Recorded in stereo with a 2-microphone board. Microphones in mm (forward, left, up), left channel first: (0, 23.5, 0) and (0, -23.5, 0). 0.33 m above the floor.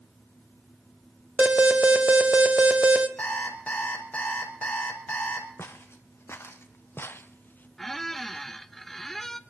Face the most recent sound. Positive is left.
turn(degrees=5)  # may be behind; listen again after turning